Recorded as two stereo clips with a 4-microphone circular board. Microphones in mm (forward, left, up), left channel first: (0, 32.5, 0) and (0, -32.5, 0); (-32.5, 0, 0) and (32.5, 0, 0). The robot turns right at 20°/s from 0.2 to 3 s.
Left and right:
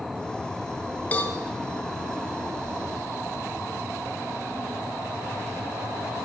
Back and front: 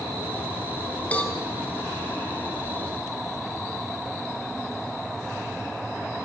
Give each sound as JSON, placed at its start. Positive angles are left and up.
{"t": 1.1, "sound": "a cowbell", "azimuth_deg": 135, "distance_m": 1.6}